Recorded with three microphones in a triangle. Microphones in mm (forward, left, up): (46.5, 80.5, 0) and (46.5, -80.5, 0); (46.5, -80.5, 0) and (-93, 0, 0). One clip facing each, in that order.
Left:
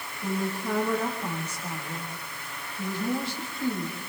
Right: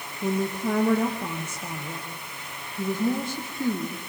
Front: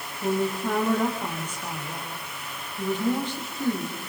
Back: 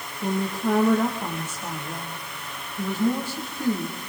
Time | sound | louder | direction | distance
0.2 | a woman speaking | right 4 dB, even | 130° right | 5.5 m